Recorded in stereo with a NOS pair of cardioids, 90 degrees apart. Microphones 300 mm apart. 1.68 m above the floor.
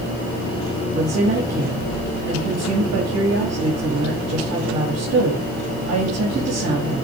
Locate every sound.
0.9 s a woman speaking: 55° right, 4 m